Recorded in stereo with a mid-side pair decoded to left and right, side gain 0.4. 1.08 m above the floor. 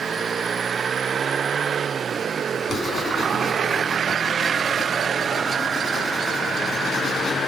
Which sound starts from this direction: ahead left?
Writing, at 2.7 s.